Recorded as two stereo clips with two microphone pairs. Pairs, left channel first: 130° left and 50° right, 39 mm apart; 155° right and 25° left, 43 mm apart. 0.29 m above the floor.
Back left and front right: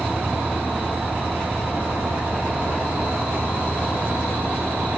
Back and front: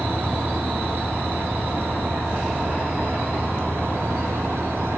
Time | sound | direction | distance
0.0 | an engine running | 10° right | 9.5 m